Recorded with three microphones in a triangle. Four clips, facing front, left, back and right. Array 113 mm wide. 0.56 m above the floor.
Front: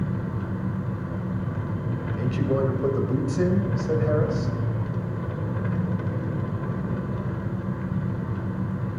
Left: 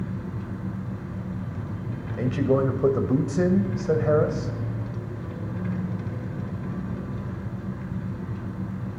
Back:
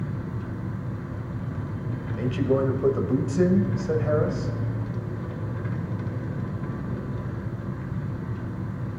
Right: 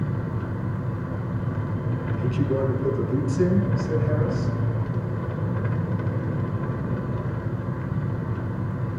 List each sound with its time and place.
0.0 s an engine running: 60° right, 1.7 m
2.2 s a man speaking: 95° left, 2.5 m